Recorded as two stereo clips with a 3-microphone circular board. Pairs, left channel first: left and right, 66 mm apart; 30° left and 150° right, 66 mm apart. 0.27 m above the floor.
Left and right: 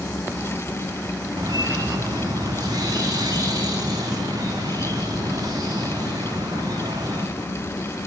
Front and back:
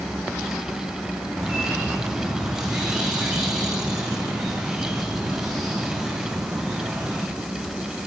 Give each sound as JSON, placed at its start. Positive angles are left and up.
{"t": 1.4, "sound": "a bird", "azimuth_deg": -65, "distance_m": 7.0}